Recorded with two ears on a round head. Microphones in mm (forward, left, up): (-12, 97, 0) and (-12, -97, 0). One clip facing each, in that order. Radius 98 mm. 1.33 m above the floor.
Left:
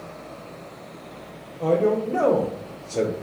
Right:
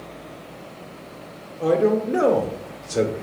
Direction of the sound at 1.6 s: 15° right (ahead or behind).